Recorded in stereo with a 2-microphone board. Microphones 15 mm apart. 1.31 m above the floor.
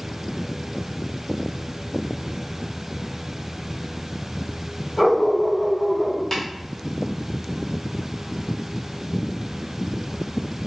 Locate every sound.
5.0 s a dog barking: 10° left (ahead or behind), 1.5 m
6.3 s tapping: 20° left (ahead or behind), 0.8 m